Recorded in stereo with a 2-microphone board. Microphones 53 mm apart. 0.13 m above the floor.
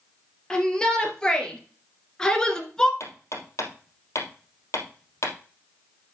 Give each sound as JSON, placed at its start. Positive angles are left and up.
{"t": 0.5, "sound": "a shout", "side_deg": 10, "distance_m": 3.0}
{"t": 3.0, "sound": "hammering", "side_deg": 65, "distance_m": 3.0}